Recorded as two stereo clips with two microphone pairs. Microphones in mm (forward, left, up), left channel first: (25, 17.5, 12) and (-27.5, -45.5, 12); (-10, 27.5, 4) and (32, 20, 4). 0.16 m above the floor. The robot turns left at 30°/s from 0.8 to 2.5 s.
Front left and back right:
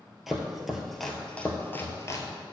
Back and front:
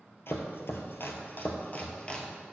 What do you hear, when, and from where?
0.3 s chopping: 145° left, 1.1 m; by 2.3 s 100° left, 1.1 m